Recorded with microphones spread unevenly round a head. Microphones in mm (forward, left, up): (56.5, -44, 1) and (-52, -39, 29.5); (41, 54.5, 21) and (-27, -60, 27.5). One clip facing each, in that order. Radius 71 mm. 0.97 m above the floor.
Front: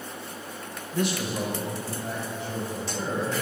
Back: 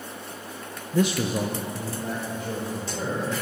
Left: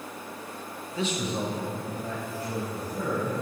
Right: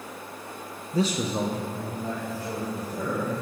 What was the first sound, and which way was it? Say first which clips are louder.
A man speaking: back 4 dB, right 4 dB; 175° right.